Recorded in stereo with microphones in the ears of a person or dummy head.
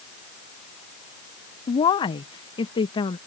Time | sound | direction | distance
1.7 | a woman speaking | 25° left (ahead or behind) | ?